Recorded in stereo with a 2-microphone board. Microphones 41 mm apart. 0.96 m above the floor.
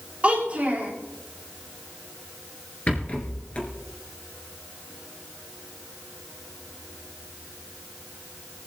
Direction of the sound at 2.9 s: 35° left (ahead or behind).